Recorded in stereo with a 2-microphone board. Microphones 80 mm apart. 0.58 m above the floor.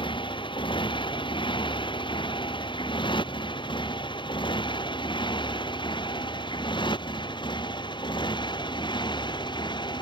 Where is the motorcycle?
75° left (ahead or behind); by 10.0 s 65° left (ahead or behind).